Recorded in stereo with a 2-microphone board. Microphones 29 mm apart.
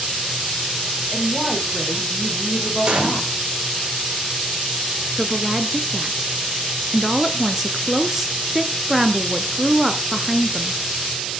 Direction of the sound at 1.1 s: 15° left (ahead or behind).